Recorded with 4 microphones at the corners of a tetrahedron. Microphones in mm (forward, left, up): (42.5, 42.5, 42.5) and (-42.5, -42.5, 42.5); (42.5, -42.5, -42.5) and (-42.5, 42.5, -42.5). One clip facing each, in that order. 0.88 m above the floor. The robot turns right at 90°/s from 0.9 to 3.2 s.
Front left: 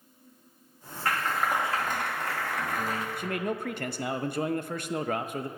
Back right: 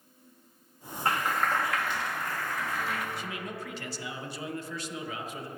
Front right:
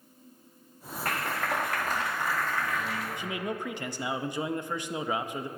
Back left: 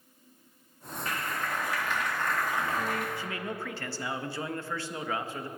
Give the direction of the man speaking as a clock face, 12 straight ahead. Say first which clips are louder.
Front left 6 dB, front right 2 dB; 11 o'clock.